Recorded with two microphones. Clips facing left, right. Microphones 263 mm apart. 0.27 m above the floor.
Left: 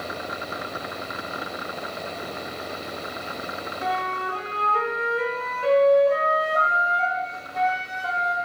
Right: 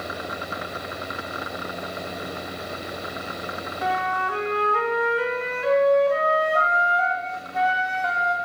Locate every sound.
3.8 s a flute: 40° left (ahead or behind), 1.5 m